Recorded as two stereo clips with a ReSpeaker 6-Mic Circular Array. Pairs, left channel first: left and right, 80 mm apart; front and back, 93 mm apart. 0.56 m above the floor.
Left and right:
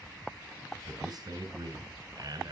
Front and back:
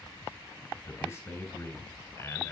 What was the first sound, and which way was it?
A man speaking, 60° right.